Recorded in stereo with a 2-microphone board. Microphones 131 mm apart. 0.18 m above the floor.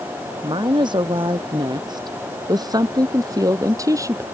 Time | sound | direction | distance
0.4 | a woman speaking | 35° right (ahead or behind) | ?